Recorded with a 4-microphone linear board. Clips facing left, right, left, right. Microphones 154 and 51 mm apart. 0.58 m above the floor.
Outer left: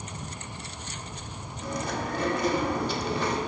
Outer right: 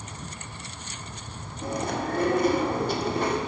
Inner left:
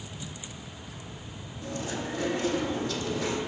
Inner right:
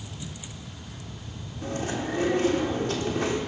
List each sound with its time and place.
1.6 s chewing: 50° right (ahead or behind), 1.7 m